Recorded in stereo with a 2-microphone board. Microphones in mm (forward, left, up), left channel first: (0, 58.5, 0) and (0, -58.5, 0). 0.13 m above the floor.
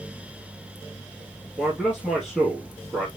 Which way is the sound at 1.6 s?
Centre (ahead or behind).